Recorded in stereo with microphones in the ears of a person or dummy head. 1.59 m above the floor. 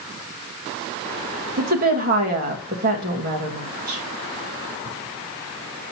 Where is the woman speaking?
45° right (ahead or behind), 1.7 m.